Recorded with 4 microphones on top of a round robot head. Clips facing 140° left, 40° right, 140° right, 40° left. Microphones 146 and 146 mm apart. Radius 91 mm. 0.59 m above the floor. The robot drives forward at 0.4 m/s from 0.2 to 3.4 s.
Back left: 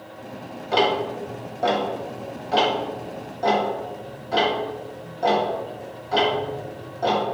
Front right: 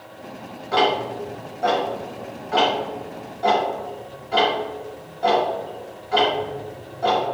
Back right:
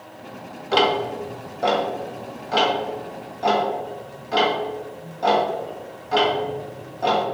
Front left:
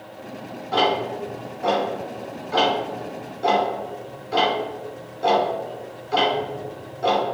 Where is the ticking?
150° right, 0.8 m; by 7.2 s 165° right, 1.8 m.